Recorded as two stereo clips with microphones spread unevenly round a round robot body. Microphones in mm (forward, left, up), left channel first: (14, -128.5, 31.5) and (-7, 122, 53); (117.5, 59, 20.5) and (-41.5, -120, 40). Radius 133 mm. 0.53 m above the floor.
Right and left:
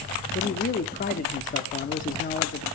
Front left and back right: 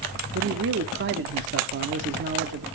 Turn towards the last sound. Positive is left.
turn(degrees=-120)